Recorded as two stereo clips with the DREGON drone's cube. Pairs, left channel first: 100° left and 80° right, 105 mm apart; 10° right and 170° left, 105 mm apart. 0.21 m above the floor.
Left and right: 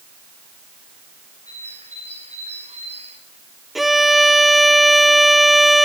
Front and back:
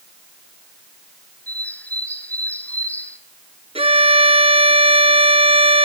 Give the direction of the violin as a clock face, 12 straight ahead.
6 o'clock.